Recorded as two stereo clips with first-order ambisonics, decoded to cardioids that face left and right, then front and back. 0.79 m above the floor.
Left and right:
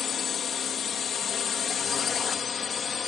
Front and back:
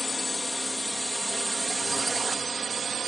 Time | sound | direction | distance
0.0 | a drone | 70° left | ?